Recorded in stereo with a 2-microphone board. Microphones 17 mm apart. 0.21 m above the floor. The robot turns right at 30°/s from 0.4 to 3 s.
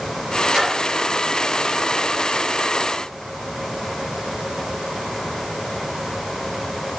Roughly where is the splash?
Right.